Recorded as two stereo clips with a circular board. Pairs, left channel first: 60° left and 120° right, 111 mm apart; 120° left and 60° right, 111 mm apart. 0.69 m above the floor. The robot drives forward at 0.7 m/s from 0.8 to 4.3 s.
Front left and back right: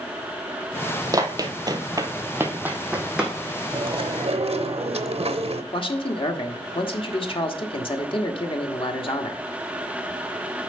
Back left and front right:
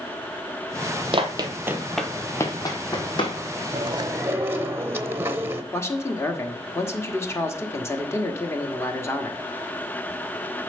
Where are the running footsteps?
70° right, 1.0 m; by 3.4 s 160° left, 1.8 m.